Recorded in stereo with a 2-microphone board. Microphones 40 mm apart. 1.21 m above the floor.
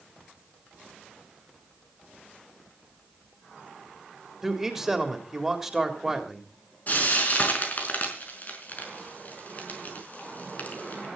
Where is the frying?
40° left (ahead or behind), 5 m.